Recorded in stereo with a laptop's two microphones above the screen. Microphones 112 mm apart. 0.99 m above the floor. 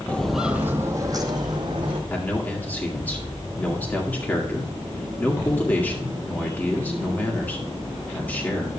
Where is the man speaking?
15° left (ahead or behind), 2.0 m.